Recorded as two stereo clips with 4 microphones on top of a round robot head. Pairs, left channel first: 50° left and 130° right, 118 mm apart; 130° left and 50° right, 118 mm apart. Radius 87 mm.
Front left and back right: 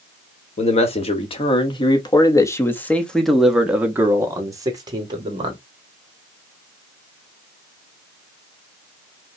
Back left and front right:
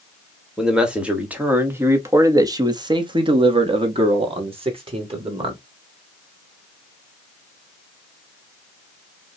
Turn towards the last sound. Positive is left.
turn(degrees=-90)